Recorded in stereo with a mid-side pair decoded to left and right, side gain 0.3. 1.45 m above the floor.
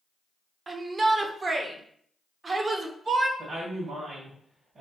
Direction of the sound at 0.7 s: 50° right.